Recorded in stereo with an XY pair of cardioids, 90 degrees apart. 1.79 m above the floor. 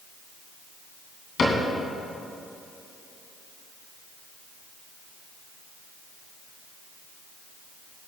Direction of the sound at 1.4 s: 55° left.